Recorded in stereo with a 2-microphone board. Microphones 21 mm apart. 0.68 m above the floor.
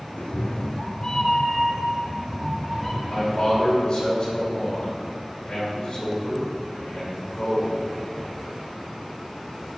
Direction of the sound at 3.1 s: 50° left (ahead or behind).